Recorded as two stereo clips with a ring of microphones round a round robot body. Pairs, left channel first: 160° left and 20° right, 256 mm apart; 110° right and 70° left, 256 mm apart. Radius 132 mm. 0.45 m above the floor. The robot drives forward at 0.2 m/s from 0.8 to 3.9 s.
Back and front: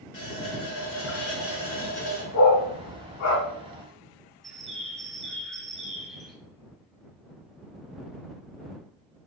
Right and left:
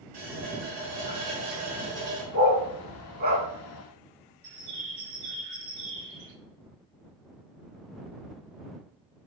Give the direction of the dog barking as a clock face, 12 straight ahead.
8 o'clock.